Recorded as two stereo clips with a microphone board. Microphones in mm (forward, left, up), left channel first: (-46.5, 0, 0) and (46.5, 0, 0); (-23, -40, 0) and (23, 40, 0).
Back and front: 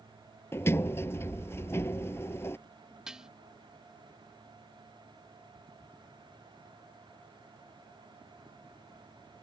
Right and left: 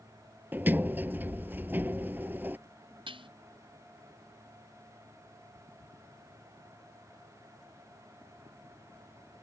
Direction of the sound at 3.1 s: 85° left.